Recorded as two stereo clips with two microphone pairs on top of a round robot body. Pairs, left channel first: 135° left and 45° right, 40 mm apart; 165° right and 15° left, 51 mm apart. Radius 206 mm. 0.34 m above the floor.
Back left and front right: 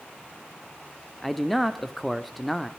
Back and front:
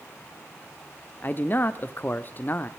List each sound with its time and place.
1.2 s a man speaking: 135° right, 1.3 m